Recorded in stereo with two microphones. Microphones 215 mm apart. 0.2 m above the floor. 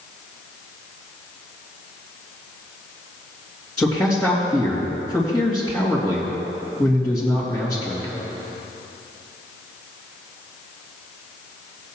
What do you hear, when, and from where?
3.8 s a man speaking: 5° left (ahead or behind), 3 m